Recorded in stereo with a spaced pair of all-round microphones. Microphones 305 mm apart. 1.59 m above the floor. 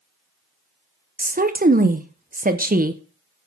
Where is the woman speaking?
30° right (ahead or behind), 0.7 m.